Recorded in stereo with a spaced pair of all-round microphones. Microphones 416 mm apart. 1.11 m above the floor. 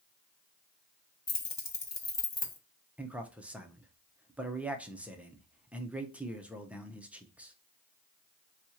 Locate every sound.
1.3 s keys jangling: 80° left, 0.9 m
3.0 s a man speaking: 5° right (ahead or behind), 0.6 m